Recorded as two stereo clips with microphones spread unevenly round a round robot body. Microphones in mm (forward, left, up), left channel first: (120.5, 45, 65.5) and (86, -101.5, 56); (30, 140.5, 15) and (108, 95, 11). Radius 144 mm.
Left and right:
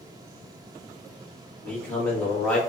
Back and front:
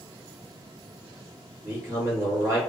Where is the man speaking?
5° right, 1.3 m.